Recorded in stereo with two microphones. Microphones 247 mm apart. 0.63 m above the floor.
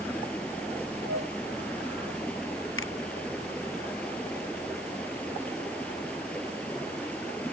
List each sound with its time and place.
0.0 s running water: 5° left (ahead or behind)
1.1 s a flute: 70° right (ahead or behind)
2.8 s a finger snap: 55° left (ahead or behind)